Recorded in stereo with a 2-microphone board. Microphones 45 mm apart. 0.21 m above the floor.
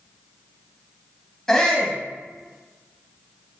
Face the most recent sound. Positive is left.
turn(degrees=10)  # may be behind; listen again after turning